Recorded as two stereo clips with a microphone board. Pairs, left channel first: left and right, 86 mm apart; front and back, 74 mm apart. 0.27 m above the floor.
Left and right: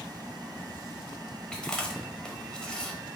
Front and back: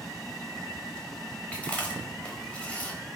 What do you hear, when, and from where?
1.5 s chewing: 30° left, 0.7 m